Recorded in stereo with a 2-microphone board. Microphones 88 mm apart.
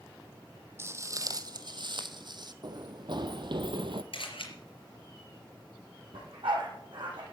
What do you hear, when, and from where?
0.8 s footsteps: 30° right (ahead or behind), 1.0 m; by 2.5 s 55° right (ahead or behind), 1.1 m
2.6 s running footsteps: 55° right (ahead or behind), 1.5 m; by 4.0 s 65° right (ahead or behind), 1.1 m
4.1 s a camera shutter: 75° left (ahead or behind), 4.5 m
6.1 s a dog barking: 65° right (ahead or behind), 5.5 m